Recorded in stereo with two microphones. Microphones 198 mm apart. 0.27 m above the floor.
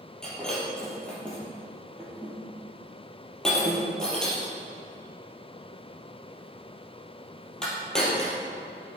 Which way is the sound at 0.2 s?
5° left (ahead or behind).